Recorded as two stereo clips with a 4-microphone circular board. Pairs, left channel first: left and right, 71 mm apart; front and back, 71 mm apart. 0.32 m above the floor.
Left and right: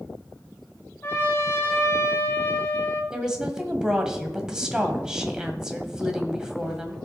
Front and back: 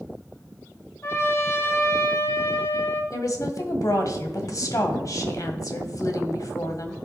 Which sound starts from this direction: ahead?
A woman speaking, at 3.1 s.